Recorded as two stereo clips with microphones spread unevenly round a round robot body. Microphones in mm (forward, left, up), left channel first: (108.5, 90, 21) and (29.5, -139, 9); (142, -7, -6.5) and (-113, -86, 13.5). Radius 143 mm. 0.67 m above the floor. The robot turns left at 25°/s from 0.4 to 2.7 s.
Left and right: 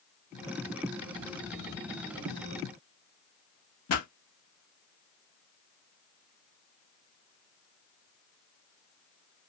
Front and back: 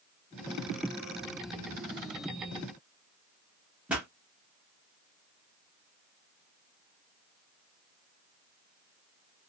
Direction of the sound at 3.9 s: 110° left.